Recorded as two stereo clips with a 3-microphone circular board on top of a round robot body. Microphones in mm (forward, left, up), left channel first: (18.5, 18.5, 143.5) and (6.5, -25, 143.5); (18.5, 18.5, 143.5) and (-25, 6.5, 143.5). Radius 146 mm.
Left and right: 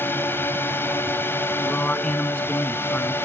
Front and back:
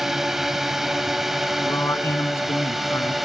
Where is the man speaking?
15° left.